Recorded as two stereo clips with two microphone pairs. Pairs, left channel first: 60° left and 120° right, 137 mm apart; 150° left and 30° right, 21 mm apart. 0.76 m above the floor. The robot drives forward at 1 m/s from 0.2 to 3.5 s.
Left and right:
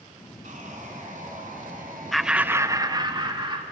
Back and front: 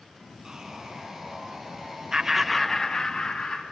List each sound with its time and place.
0.4 s sawing: 95° right, 5 m; by 2.8 s 120° right, 5.5 m
2.1 s laughter: 30° right, 0.7 m; by 3.6 s 170° right, 1.3 m